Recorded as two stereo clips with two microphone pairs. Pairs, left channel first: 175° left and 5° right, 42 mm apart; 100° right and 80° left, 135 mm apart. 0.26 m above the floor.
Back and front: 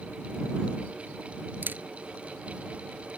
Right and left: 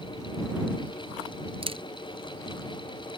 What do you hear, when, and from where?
1.6 s a camera shutter: 35° left